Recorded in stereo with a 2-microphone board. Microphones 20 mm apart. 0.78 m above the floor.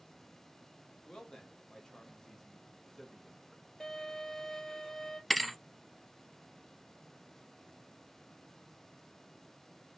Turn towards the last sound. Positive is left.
turn(degrees=5)  # may be behind; listen again after turning